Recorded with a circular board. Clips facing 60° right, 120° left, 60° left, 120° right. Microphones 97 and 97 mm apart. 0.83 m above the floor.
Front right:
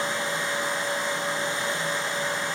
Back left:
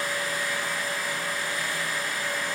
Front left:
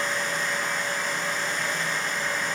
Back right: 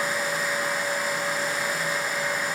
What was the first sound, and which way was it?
Only background noise.